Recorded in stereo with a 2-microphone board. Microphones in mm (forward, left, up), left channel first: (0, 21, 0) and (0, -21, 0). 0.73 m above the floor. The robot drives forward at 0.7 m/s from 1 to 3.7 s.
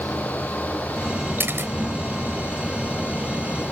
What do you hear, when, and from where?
1.4 s a camera shutter: 60° right (ahead or behind)